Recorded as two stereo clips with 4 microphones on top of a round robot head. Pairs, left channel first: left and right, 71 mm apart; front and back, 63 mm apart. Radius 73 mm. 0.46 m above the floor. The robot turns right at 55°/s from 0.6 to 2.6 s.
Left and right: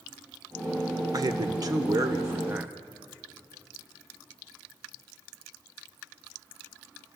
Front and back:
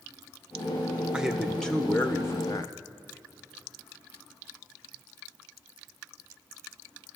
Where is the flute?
I don't hear a flute.